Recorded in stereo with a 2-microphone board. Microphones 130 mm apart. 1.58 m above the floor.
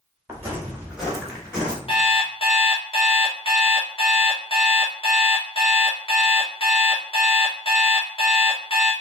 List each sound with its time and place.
0.3 s footsteps: 20° right (ahead or behind), 1.6 m; by 1.8 s 10° left (ahead or behind), 1.6 m
1.9 s an alarm clock: 45° left (ahead or behind), 1.0 m